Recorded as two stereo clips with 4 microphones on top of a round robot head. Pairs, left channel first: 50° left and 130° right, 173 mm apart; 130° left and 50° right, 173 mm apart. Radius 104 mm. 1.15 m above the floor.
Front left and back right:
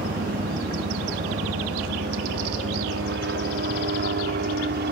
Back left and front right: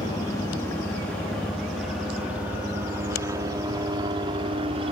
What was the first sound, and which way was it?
A helicopter, 160° right.